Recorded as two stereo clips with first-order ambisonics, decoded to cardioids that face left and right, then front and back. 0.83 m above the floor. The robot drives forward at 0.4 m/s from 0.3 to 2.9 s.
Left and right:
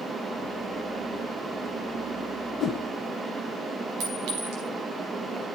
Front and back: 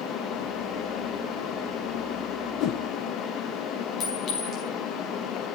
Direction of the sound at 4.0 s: 60° right.